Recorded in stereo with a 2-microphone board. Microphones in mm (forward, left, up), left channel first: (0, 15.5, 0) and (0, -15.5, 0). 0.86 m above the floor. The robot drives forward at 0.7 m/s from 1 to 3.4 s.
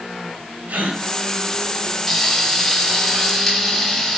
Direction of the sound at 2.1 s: 5° left (ahead or behind).